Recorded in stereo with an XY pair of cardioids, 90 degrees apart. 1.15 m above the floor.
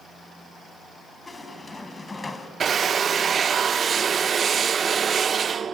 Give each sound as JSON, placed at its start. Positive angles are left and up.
{"t": 1.3, "sound": "a squeak", "azimuth_deg": 20, "distance_m": 3.0}
{"t": 2.6, "sound": "a drill", "azimuth_deg": -55, "distance_m": 0.6}